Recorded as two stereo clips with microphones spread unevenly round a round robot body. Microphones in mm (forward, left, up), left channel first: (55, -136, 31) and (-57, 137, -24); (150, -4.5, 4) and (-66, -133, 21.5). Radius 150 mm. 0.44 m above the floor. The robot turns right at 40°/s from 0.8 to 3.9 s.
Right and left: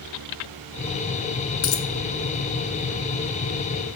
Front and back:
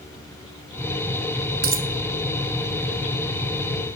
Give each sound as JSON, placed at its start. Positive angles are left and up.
{"t": 1.6, "sound": "a dropped coin", "azimuth_deg": -100, "distance_m": 1.2}